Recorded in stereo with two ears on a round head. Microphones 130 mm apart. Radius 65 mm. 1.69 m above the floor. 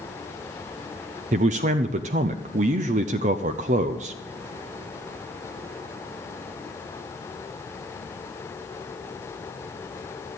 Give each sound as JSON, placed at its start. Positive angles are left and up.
{"t": 1.3, "sound": "a man speaking", "side_deg": -50, "distance_m": 0.6}